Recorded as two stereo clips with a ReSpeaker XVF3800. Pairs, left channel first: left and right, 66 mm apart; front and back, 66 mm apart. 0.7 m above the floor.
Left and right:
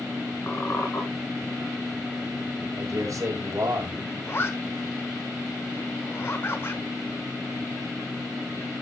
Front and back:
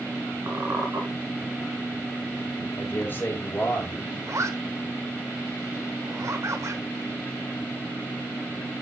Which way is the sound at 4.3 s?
140° left.